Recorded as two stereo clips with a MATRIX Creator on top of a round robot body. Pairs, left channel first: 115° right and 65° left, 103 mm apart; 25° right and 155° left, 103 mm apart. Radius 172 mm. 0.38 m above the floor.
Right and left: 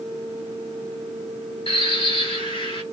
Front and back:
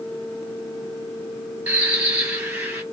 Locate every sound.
1.7 s a bird: 125° right, 2 m